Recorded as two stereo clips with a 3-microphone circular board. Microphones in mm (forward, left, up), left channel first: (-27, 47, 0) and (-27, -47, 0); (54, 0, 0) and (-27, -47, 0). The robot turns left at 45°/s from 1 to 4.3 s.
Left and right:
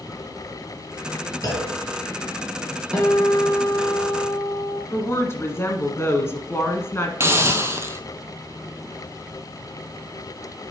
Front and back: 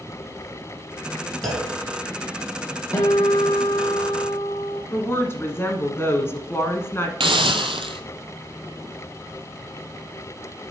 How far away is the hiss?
About 0.8 m.